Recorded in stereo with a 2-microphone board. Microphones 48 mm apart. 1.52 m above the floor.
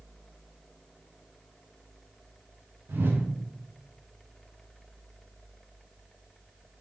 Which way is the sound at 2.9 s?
50° right (ahead or behind).